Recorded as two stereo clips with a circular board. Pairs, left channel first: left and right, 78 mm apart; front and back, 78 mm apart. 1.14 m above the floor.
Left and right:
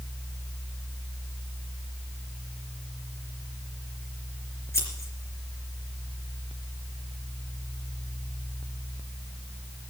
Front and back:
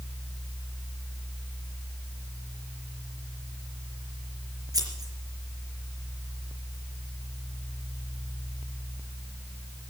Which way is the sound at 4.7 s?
140° left.